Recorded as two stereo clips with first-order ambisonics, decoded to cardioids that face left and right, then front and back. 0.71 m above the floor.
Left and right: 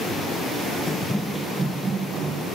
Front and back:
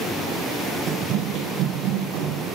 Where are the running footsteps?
150° left, 0.8 m; by 2.6 s 155° right, 2.5 m.